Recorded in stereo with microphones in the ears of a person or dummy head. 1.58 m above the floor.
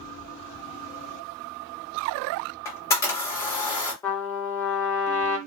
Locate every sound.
2.6 s a camera shutter: 15° left (ahead or behind), 1.0 m
4.0 s a trumpet: 10° left (ahead or behind), 0.8 m